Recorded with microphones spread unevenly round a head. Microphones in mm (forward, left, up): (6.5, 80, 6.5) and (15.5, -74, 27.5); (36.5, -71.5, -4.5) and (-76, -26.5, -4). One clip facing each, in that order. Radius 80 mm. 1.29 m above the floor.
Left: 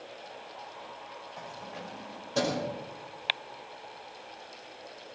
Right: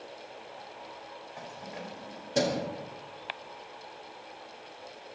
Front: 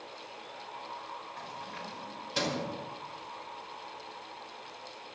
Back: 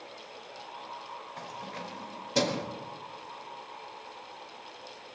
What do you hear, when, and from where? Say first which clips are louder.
1.4 s keys jangling: right 1 dB, back 2 dB; 165° right, 5 m; by 2.6 s 155° right, 4.5 m